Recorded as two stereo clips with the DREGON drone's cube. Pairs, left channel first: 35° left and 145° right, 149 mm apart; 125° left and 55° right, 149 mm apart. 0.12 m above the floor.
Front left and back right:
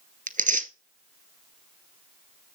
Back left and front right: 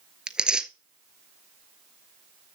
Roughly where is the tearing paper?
Behind right.